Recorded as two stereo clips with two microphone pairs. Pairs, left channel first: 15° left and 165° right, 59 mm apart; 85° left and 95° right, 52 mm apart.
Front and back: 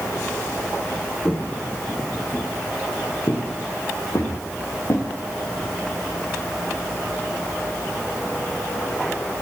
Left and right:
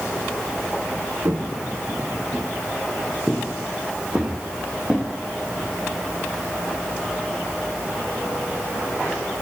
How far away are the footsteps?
About 3 m.